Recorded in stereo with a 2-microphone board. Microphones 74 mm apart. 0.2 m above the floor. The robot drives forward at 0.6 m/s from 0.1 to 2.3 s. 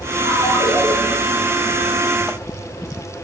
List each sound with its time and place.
0.2 s a ringtone: 35° left (ahead or behind), 2 m; by 0.9 s 40° left (ahead or behind), 1.8 m